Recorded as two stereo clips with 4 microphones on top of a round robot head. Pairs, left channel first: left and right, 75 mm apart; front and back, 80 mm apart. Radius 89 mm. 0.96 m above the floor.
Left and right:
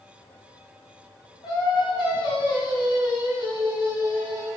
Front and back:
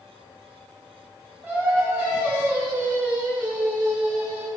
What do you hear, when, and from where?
1.4 s singing: 110° left, 1.2 m